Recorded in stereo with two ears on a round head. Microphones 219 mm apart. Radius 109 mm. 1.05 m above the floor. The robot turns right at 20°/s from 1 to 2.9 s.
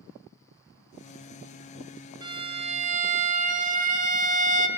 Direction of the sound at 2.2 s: 20° right (ahead or behind).